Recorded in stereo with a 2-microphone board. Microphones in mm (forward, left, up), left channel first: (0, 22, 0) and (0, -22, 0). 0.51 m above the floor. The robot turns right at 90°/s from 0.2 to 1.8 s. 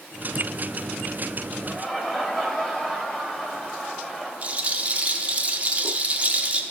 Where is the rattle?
30° right (ahead or behind), 0.6 m.